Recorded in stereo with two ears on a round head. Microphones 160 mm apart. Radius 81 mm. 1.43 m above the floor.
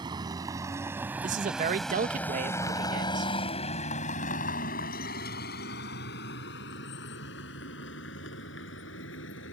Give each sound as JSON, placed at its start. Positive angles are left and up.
{"t": 0.0, "sound": "a vehicle", "side_deg": -25}
{"t": 1.2, "sound": "a man speaking", "side_deg": -45}